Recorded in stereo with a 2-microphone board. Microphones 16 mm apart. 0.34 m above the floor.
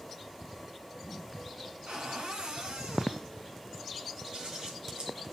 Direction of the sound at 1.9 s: 65° right (ahead or behind).